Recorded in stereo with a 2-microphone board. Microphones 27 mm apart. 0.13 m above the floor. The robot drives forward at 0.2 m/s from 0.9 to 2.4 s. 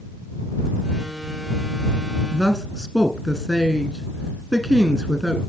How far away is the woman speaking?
About 1.2 m.